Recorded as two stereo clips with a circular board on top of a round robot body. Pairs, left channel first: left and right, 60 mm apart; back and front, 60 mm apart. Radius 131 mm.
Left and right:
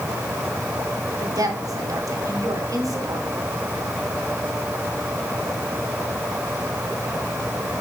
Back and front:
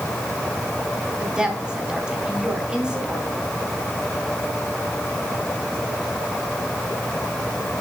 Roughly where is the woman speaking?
Right.